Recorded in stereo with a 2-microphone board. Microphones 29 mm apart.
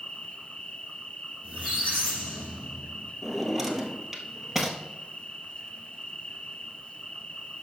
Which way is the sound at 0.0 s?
45° left (ahead or behind).